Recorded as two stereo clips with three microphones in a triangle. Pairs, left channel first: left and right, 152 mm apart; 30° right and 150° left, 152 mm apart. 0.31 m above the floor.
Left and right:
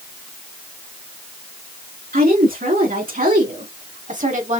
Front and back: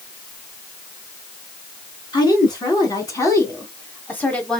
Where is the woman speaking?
90° right, 3 m; by 4.6 s 115° right, 1.6 m.